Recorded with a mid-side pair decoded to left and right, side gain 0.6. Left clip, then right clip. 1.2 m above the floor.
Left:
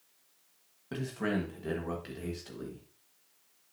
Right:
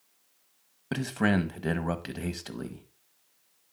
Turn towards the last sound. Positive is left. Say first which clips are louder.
# right 6 dB
turn(degrees=-50)